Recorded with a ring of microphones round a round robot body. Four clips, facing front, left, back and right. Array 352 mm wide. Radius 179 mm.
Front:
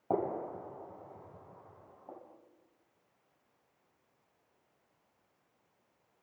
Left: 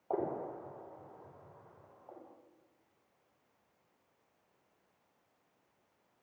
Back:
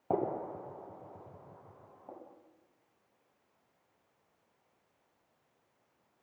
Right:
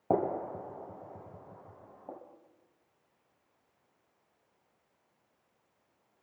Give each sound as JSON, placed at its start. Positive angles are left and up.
{"t": 0.1, "sound": "a gunshot", "azimuth_deg": -100, "distance_m": 7.5}